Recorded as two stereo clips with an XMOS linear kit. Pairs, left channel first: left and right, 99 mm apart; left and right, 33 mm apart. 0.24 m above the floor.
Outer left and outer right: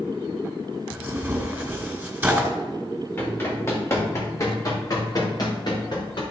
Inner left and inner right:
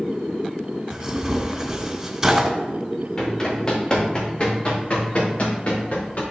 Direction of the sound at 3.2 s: 25° left (ahead or behind).